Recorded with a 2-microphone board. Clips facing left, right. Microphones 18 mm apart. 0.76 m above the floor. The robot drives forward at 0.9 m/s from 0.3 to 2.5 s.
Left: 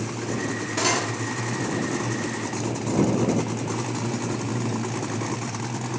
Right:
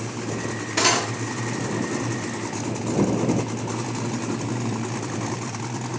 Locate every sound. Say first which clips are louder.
0.8 s cutlery clinking: right 4 dB; 25° right (ahead or behind), 0.6 m; by 1.1 s 15° right (ahead or behind), 0.9 m